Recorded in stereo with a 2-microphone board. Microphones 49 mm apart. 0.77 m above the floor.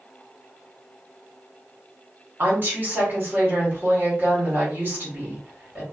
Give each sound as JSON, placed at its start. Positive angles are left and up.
{"t": 2.4, "sound": "a woman speaking", "side_deg": -40, "distance_m": 1.5}